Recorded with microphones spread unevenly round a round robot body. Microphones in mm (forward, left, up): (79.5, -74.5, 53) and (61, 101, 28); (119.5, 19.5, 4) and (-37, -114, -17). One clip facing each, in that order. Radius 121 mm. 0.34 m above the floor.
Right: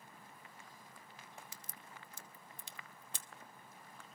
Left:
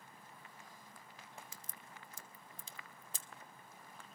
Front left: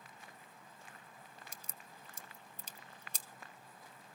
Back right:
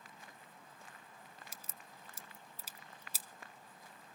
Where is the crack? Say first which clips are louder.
Even, even; 55° right, 0.8 m.